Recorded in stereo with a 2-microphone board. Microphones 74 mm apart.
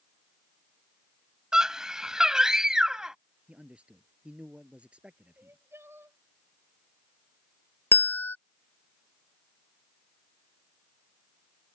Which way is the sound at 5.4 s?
35° right (ahead or behind).